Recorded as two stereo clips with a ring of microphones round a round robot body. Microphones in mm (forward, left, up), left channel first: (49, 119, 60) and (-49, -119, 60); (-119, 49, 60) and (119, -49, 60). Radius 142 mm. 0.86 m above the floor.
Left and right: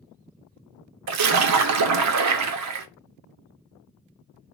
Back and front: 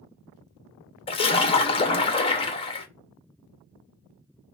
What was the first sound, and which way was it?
A splash, 135° right.